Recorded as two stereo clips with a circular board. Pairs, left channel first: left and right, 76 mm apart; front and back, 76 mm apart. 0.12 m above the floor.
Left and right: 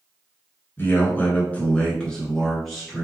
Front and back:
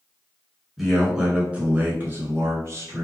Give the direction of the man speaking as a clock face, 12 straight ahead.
9 o'clock.